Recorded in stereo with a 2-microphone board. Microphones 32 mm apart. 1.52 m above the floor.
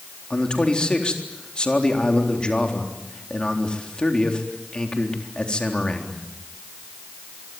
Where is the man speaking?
30° left (ahead or behind), 3.5 m.